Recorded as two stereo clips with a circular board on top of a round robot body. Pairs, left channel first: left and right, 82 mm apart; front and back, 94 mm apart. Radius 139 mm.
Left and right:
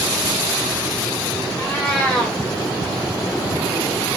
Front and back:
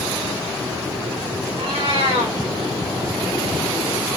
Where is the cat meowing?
165° left, 5.5 m.